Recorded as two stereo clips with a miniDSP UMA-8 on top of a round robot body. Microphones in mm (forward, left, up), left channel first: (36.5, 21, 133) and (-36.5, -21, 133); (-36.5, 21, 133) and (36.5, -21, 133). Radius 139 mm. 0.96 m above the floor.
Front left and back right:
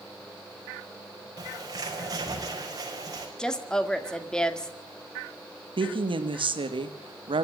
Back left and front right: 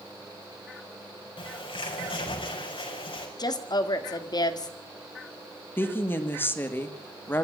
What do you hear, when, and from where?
1.4 s a bird: 165° left, 5 m
3.4 s a woman speaking: 110° left, 1.9 m
5.8 s a woman speaking: 145° right, 2.5 m